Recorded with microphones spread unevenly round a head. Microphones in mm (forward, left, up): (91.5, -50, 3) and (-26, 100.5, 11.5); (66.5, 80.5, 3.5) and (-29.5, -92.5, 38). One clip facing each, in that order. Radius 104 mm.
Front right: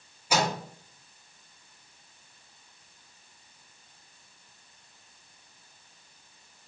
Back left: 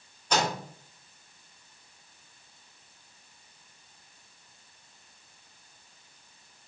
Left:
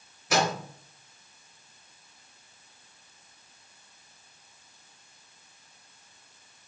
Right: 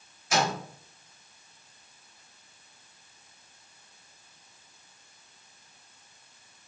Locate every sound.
0.3 s a microwave: 30° left, 3.5 m